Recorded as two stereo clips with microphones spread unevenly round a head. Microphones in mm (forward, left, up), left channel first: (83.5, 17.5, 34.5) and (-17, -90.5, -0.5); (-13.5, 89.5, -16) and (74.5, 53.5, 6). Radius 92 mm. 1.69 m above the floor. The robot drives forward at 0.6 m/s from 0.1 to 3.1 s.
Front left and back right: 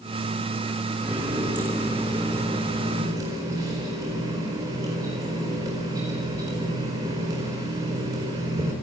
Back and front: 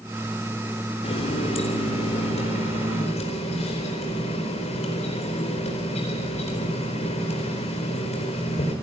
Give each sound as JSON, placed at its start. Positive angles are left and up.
{"t": 1.0, "sound": "a running tap", "azimuth_deg": 140, "distance_m": 3.5}